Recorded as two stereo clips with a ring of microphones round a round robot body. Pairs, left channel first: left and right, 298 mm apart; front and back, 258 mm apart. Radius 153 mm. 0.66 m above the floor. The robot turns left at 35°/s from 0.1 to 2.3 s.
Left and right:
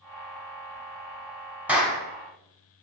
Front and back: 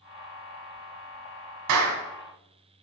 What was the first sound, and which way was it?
A clap, 175° right.